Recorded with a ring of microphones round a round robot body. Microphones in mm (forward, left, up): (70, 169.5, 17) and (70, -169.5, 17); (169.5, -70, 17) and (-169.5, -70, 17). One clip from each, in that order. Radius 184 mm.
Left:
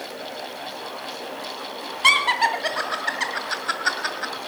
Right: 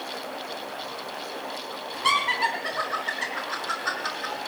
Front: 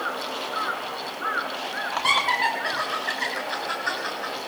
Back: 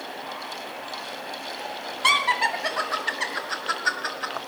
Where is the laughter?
120° left, 2.5 m.